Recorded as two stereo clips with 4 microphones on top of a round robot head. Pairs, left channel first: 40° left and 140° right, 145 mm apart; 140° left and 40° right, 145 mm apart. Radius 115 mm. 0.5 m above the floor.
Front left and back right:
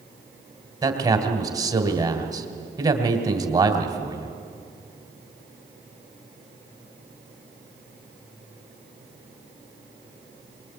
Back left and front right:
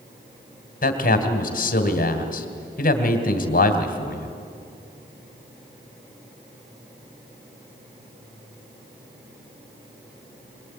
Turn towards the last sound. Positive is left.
turn(degrees=155)